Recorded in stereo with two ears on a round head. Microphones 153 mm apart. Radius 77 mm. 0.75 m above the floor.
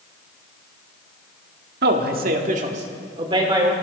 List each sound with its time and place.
1.8 s a man speaking: 65° right (ahead or behind), 1.7 m; by 3.7 s 25° right (ahead or behind), 2.5 m